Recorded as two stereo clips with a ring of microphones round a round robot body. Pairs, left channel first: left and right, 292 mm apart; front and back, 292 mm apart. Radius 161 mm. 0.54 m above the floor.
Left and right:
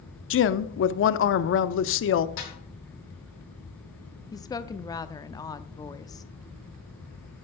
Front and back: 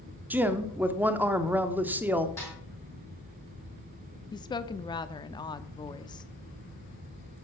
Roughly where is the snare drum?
Left.